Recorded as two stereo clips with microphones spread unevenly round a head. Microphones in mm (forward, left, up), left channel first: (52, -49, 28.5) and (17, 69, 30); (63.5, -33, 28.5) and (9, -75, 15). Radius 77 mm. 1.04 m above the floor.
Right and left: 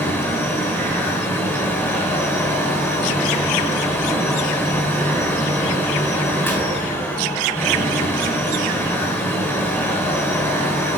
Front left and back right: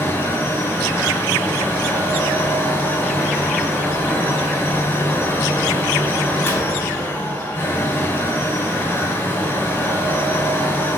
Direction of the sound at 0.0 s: 15° right.